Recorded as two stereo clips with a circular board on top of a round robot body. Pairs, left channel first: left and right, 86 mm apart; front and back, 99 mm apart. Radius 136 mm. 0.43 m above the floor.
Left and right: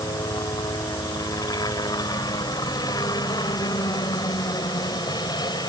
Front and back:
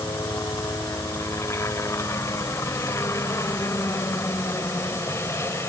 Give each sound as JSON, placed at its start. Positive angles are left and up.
{"t": 0.0, "sound": "a helicopter", "azimuth_deg": 55}